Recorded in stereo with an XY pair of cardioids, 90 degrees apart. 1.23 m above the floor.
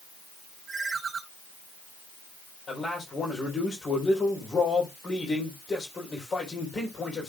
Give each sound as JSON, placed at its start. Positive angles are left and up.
{"t": 0.7, "sound": "a ringtone", "azimuth_deg": -40, "distance_m": 4.0}
{"t": 2.7, "sound": "a man speaking", "azimuth_deg": 45, "distance_m": 4.0}